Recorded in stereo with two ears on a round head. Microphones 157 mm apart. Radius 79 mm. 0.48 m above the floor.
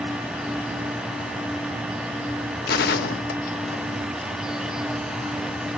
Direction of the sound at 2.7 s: 60° left (ahead or behind).